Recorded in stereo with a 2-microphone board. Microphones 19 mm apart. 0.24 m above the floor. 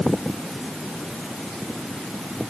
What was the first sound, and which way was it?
Only background noise.